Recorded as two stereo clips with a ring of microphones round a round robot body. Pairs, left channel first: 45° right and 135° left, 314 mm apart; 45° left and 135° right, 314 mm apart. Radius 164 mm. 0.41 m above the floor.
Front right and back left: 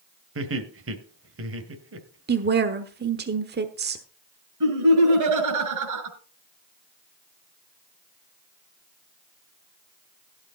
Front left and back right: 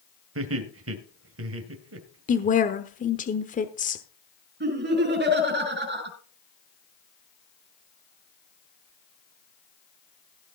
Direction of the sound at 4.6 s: 165° left.